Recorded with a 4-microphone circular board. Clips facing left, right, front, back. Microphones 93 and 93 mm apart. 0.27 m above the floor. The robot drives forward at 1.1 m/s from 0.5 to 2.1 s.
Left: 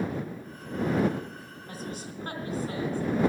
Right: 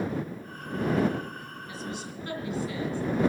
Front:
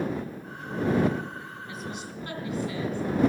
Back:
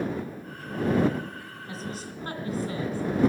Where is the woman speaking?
125° left, 2.5 m; by 3.0 s 135° left, 3 m.